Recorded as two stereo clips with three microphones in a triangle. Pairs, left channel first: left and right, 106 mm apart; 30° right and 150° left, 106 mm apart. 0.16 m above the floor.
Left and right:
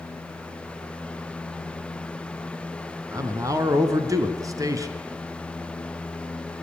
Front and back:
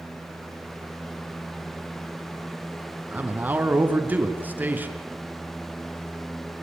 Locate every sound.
3.1 s a man speaking: 140° right, 1.6 m